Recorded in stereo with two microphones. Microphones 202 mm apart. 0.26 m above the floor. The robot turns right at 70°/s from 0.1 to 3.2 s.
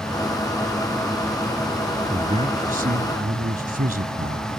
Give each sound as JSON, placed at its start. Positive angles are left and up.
{"t": 2.1, "sound": "a man speaking", "azimuth_deg": -155}